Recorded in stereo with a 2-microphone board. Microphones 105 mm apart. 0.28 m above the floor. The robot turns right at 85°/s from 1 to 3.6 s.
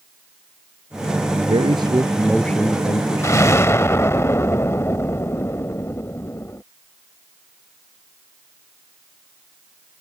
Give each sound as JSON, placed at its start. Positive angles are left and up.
{"t": 1.4, "sound": "a man speaking", "azimuth_deg": -80}
{"t": 3.2, "sound": "an explosion", "azimuth_deg": 80}